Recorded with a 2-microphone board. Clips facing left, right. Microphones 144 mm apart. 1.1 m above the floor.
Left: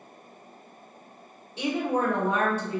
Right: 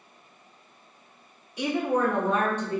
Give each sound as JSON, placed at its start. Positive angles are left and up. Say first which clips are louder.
{"t": 1.6, "sound": "a woman speaking", "louder": "right 1 dB", "side_deg": 25, "distance_m": 1.7}